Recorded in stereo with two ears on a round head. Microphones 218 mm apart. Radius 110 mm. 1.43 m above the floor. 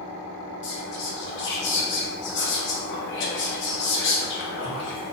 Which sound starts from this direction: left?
Whispering, at 0.6 s.